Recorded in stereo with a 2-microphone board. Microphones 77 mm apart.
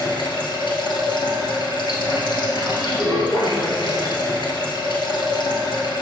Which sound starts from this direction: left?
Running water, at 0.0 s.